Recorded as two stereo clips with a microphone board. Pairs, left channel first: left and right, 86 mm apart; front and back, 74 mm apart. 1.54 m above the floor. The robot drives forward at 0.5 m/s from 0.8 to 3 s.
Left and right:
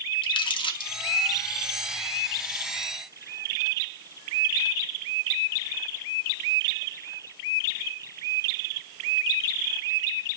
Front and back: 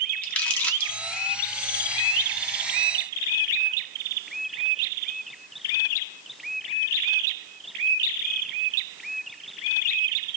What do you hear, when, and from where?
0.2 s crumpling: 75° left, 1.6 m; by 0.9 s 80° left, 1.6 m